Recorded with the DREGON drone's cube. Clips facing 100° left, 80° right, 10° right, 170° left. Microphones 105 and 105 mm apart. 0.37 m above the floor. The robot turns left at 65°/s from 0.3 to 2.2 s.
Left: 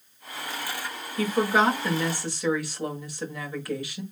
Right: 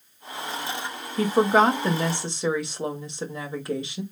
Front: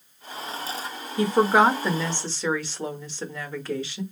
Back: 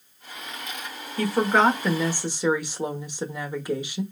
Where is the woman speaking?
55° right, 1.0 m; by 4.0 s 125° right, 1.0 m.